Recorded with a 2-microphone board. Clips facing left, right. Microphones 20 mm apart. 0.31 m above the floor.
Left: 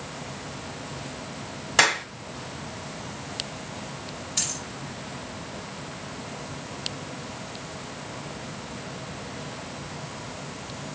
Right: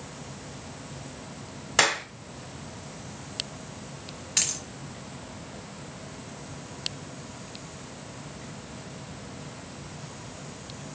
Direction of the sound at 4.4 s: 80° right.